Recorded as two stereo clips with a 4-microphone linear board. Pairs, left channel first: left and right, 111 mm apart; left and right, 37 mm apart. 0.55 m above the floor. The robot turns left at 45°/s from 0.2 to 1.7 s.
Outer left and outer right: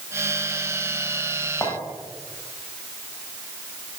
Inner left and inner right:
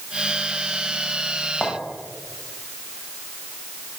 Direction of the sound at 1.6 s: 30° left (ahead or behind).